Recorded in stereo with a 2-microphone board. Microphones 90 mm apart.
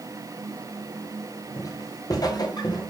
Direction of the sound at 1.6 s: 40° left (ahead or behind).